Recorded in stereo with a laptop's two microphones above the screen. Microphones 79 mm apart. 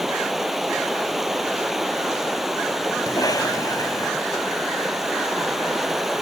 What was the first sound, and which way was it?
Running water, 5° right (ahead or behind).